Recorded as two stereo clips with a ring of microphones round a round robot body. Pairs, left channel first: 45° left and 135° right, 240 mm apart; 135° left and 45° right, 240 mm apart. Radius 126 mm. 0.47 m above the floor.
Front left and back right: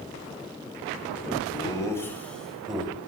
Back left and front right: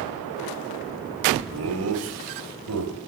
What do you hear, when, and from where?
1.5 s laughter: 25° right, 1.9 m; by 3.0 s 50° right, 2.5 m